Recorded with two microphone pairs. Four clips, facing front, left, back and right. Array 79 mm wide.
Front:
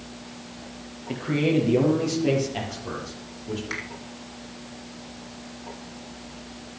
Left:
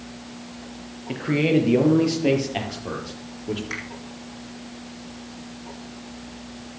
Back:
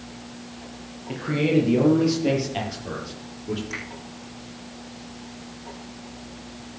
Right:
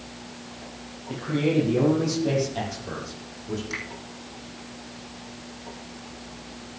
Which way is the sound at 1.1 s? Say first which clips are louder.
Left 4 dB, back 1 dB; 80° left.